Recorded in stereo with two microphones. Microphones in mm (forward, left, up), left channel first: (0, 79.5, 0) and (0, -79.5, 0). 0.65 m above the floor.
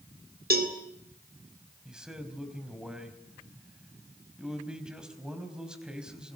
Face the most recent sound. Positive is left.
turn(degrees=-5)  # may be behind; listen again after turning